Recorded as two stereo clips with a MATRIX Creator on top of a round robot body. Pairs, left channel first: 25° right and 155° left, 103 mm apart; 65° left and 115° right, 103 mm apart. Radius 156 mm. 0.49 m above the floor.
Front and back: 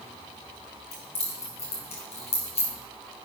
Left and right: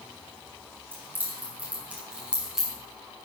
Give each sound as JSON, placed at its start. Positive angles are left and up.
{"t": 0.9, "sound": "keys jangling", "azimuth_deg": -40, "distance_m": 4.0}